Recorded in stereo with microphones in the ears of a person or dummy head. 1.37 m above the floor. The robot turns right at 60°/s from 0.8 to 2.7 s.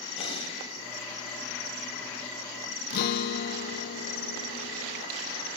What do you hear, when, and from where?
0.2 s breathing: 40° left (ahead or behind), 2.5 m
2.9 s a guitar: 60° left (ahead or behind), 0.8 m